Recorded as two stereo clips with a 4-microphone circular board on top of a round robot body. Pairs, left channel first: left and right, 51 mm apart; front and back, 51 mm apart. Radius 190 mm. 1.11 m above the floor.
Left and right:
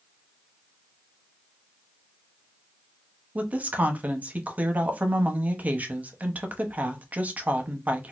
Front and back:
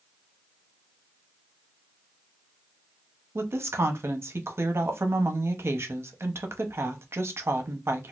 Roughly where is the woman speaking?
Behind right.